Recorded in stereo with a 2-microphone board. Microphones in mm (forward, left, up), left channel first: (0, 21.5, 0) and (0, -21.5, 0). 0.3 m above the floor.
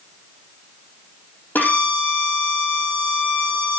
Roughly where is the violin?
Left.